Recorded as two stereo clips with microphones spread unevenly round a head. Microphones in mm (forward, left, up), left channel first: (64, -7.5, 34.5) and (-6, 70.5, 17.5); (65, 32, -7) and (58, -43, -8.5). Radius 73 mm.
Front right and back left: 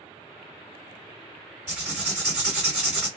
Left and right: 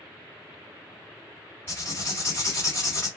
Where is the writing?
150° left, 2 m.